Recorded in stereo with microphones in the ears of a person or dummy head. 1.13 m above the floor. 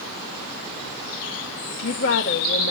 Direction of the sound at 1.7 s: 65° left (ahead or behind).